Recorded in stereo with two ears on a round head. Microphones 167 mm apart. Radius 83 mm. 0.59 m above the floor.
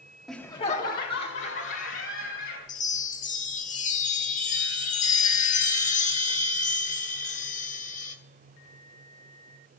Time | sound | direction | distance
0.3 | laughter | centre (ahead or behind) | 0.9 m
2.7 | a chime | 40° left (ahead or behind) | 1.2 m